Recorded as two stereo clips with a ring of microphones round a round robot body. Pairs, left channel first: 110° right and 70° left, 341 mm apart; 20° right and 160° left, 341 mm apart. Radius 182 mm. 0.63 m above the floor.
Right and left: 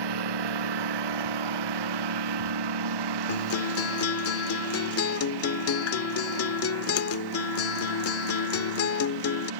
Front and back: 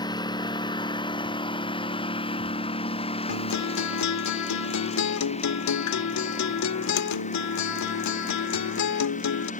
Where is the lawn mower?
55° left; by 9.6 s 45° left.